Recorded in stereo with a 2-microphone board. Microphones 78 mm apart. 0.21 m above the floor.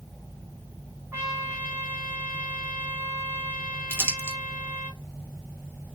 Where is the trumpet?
30° right (ahead or behind), 1.6 m.